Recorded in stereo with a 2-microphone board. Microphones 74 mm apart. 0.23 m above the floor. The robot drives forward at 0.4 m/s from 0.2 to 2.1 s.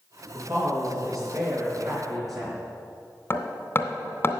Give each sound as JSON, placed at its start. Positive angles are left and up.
{"t": 0.3, "sound": "a woman speaking", "side_deg": -50, "distance_m": 4.0}
{"t": 3.3, "sound": "hammering", "side_deg": 30, "distance_m": 0.9}